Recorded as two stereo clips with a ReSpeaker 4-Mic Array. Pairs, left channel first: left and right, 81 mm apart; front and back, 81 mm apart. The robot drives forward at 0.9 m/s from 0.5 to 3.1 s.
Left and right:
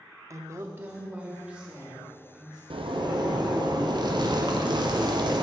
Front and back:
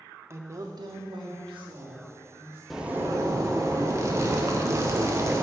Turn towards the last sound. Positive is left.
turn(degrees=-125)